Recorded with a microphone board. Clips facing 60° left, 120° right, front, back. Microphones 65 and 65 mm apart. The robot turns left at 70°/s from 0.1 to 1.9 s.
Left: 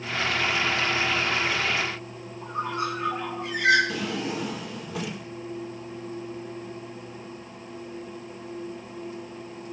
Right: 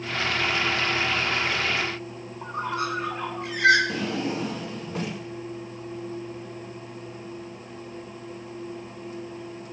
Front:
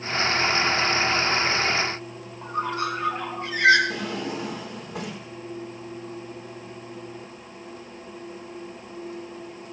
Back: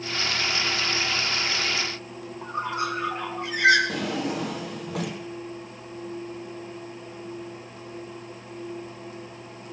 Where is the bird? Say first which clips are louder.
Even, front 2 dB; 110° right, 2.5 m.